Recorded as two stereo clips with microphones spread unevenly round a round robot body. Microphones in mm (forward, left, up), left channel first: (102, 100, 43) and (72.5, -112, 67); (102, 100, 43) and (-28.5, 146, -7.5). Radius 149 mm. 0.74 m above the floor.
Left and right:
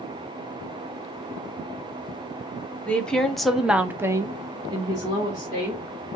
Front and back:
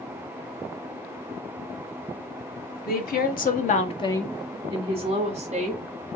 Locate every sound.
2.9 s a woman speaking: straight ahead, 1.0 m; by 5.8 s 175° right, 1.3 m